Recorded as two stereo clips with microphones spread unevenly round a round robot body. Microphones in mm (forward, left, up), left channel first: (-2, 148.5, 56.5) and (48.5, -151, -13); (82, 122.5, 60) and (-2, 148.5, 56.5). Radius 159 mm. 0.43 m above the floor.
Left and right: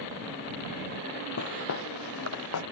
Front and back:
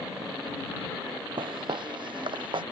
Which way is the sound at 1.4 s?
140° left.